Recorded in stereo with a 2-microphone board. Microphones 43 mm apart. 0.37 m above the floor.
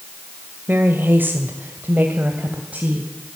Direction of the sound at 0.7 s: 50° right (ahead or behind).